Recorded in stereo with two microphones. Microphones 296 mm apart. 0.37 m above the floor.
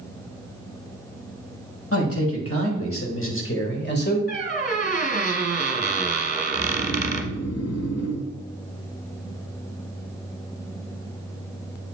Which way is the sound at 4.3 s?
35° right (ahead or behind).